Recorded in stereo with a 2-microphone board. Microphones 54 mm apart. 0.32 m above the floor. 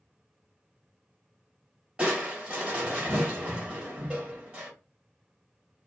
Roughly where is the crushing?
Right.